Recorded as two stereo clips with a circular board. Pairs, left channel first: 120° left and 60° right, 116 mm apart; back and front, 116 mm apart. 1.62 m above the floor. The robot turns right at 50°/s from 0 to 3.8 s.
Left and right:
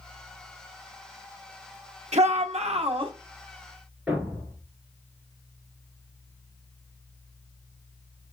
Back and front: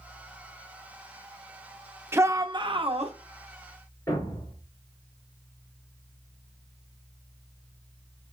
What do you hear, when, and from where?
2.1 s a shout: 70° right, 0.9 m; by 3.1 s 20° right, 0.9 m
4.1 s a thud: 140° right, 1.9 m